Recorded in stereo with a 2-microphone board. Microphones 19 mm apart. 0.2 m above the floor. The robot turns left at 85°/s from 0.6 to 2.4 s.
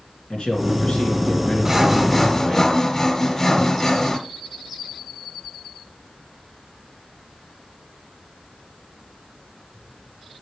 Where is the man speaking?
120° left, 3 m; by 2.6 s 35° right, 3 m.